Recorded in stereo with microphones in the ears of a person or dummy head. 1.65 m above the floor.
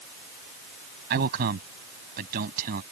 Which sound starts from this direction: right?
A man speaking, at 1.1 s.